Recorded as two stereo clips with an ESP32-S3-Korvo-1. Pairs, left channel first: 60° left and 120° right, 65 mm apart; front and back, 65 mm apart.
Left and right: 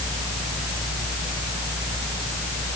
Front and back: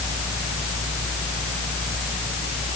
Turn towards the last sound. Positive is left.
No sound to turn to.